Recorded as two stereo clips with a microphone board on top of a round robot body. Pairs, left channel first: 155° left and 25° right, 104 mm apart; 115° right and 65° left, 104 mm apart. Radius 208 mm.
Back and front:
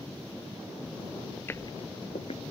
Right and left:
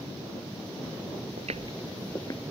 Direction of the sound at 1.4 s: 80° left.